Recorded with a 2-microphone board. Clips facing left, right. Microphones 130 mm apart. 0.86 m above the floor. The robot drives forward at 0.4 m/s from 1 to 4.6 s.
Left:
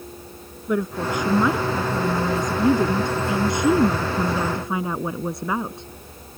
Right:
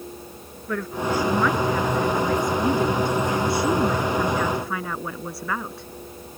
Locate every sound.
0.7 s a woman speaking: 20° left (ahead or behind)